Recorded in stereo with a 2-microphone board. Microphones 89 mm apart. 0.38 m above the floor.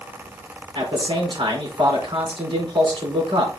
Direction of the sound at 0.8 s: 75° right (ahead or behind).